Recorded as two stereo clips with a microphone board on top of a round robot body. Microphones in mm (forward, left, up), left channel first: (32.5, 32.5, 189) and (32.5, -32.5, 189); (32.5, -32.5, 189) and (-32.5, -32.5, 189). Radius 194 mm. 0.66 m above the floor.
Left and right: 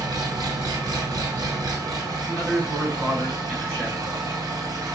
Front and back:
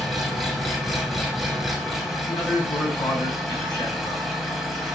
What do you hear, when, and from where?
0.0 s an engine running: 90° right, 2.5 m
2.3 s a man speaking: 20° right, 5.5 m